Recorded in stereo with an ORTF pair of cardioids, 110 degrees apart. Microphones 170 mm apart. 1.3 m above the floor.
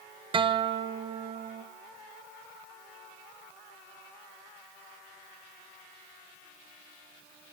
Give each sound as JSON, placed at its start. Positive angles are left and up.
{"t": 0.3, "sound": "a guitar", "azimuth_deg": -30, "distance_m": 0.9}